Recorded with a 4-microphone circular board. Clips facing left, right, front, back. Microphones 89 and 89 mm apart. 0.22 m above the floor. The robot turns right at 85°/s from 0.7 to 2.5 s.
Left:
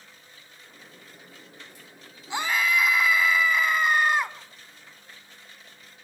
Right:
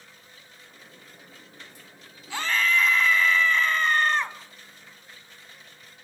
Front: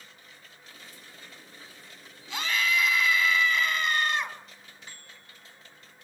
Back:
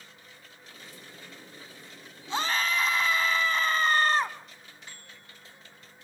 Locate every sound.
2.3 s a scream: 145° left, 1.5 m; by 4.4 s 165° left, 1.5 m